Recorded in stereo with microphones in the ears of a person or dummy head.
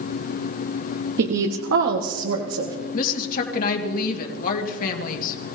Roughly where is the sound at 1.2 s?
Right.